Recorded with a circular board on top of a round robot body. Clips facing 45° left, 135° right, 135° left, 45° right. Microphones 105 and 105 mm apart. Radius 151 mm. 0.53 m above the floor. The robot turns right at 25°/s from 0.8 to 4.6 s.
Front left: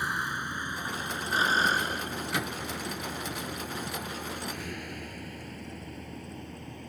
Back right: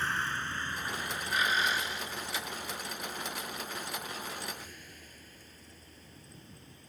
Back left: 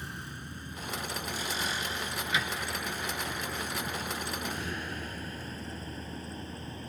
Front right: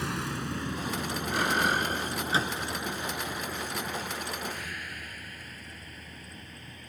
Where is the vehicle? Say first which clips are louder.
Front left 1 dB, front right 10 dB; 35° right; by 6.9 s 75° left.